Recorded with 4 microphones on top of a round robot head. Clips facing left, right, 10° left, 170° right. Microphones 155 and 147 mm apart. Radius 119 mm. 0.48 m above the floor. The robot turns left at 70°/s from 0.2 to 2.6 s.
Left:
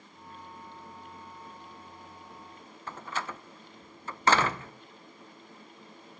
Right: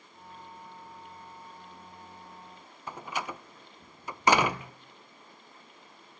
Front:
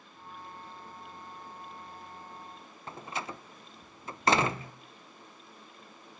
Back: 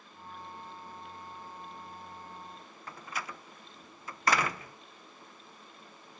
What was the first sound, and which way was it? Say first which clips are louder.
A door slam: right 1 dB, front 3 dB; 25° right.